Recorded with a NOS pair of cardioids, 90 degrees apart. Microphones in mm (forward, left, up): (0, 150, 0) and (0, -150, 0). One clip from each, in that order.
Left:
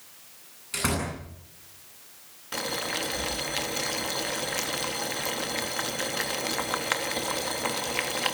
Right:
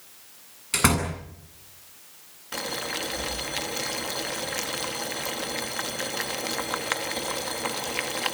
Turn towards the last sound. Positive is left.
turn(degrees=5)